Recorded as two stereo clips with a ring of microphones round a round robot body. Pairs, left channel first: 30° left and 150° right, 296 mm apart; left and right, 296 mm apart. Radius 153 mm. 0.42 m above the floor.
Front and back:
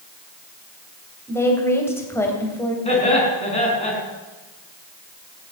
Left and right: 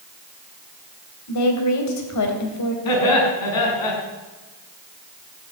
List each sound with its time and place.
1.3 s a woman speaking: 110° left, 2.5 m
2.9 s laughter: 100° left, 5 m